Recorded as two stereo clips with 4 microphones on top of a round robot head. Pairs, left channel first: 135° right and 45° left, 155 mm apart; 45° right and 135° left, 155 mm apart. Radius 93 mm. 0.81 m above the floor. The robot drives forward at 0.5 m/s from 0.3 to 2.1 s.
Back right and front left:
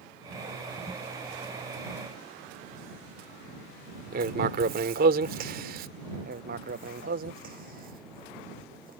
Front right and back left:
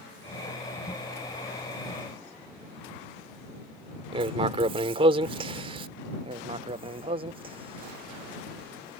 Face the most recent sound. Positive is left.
turn(degrees=80)